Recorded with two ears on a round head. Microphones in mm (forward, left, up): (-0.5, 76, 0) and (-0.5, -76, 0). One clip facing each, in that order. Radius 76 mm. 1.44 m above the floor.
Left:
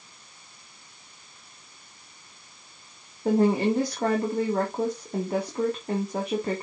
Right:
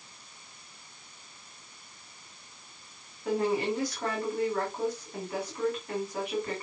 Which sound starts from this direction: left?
A woman speaking, at 3.2 s.